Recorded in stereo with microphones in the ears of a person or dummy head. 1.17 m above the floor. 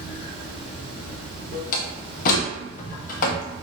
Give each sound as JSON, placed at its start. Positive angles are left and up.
{"t": 0.0, "sound": "running water", "side_deg": -50, "distance_m": 1.8}
{"t": 1.7, "sound": "a door slam", "side_deg": 50, "distance_m": 0.9}